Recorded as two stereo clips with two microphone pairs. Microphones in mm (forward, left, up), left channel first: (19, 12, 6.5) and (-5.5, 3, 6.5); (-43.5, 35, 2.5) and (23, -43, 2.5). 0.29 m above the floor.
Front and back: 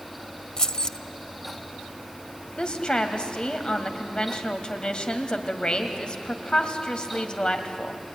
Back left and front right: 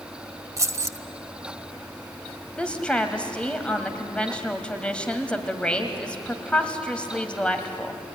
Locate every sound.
0.6 s keys jangling: 15° right, 0.7 m
2.6 s a woman speaking: 55° left, 1.8 m